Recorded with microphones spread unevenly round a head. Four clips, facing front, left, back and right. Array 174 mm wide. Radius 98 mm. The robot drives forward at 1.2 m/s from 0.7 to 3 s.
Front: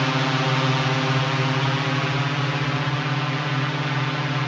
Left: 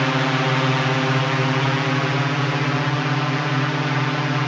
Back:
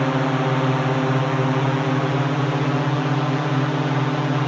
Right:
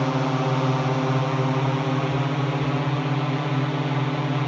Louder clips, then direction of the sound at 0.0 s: Left 3 dB, back 3 dB; 165° left.